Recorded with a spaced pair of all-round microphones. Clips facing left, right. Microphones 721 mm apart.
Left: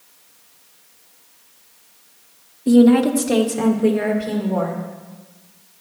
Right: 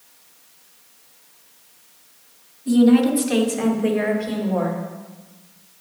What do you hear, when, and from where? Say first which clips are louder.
2.7 s a woman speaking: left 2 dB; 80° left, 1.0 m; by 4.8 s 60° left (ahead or behind), 2.5 m